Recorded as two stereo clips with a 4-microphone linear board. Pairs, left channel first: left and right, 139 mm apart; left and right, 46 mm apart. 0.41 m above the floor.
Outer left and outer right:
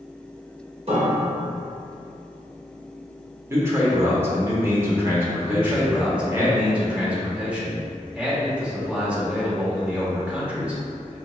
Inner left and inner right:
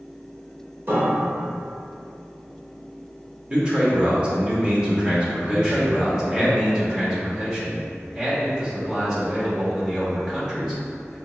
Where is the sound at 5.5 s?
10° right (ahead or behind), 1.0 m.